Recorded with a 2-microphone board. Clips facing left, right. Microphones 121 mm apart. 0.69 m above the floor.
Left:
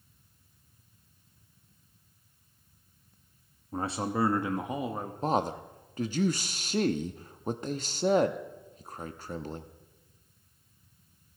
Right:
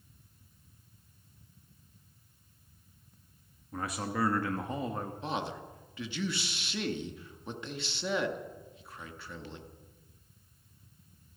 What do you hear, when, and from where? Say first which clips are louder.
3.7 s a man speaking: left 4 dB; 30° left (ahead or behind), 0.9 m; by 5.1 s 5° left (ahead or behind), 1.2 m
5.2 s a man speaking: left 11 dB; 40° left (ahead or behind), 0.7 m